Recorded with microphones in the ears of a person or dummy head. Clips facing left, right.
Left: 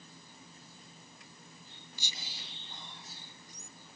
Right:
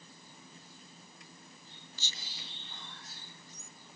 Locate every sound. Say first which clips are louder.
2.0 s whispering: left 2 dB; 15° left (ahead or behind), 1.0 m